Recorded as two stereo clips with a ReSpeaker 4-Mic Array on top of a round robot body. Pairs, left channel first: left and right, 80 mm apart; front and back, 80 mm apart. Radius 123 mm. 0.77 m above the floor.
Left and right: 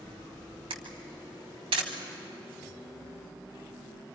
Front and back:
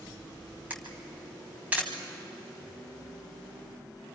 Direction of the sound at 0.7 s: 110° right.